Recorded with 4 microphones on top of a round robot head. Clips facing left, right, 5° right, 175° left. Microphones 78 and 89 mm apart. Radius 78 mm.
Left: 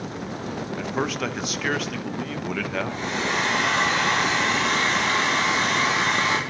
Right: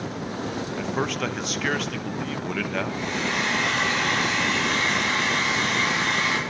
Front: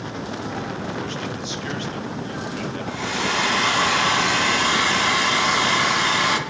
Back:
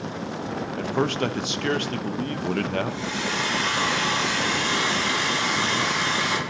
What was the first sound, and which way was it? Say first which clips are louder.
A man speaking: even, back 4 dB; 175° left.